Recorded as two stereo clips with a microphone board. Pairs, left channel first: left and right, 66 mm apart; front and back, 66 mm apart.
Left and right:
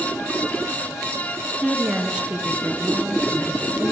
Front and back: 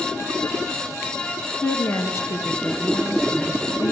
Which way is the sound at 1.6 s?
25° right.